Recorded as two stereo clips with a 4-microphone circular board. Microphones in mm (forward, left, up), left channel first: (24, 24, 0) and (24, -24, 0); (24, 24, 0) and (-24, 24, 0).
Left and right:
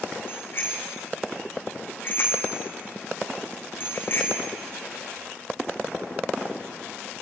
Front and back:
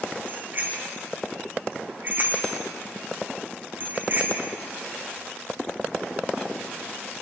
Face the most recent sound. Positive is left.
turn(degrees=135)